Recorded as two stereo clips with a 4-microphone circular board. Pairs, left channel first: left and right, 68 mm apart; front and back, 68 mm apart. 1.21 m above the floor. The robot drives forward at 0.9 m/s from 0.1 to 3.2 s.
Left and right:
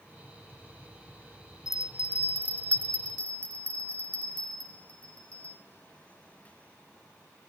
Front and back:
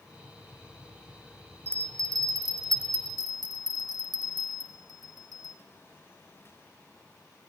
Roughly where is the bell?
Behind left.